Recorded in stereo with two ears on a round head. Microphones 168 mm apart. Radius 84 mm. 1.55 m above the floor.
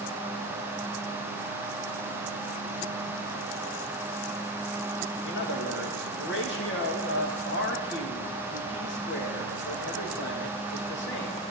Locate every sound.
5.2 s a man speaking: 65° left (ahead or behind), 2.5 m